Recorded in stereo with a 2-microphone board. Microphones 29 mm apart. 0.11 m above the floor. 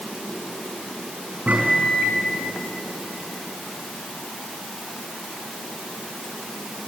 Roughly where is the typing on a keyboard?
No typing on a keyboard in this recording.